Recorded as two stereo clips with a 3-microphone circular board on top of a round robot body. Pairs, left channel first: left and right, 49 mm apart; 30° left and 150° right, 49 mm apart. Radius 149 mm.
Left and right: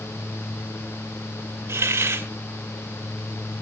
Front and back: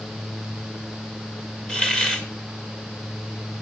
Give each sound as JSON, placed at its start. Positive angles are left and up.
{"t": 1.7, "sound": "a hiss", "azimuth_deg": -45, "distance_m": 1.6}